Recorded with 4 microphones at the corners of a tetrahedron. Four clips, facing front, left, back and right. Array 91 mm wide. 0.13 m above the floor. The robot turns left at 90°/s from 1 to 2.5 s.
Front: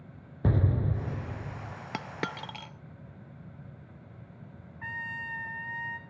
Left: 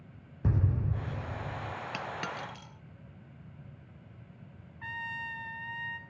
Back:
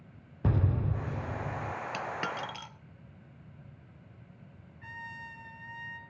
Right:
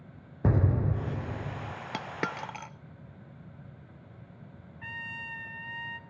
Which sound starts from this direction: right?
An explosion, at 0.4 s.